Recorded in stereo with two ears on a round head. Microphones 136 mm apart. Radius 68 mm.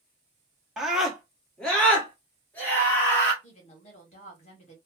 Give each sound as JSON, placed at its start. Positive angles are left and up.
{"t": 0.8, "sound": "a scream", "side_deg": -5, "distance_m": 1.1}
{"t": 3.4, "sound": "a woman speaking", "side_deg": 45, "distance_m": 1.6}